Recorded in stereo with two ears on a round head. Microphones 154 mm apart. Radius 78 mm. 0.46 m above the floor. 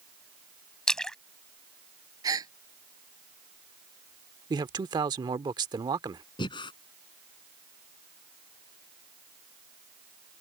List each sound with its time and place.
0.9 s a splash: 5° left (ahead or behind)
2.2 s a gasp: 25° right (ahead or behind)
4.5 s a man speaking: 25° right (ahead or behind)
6.4 s breathing: 30° left (ahead or behind)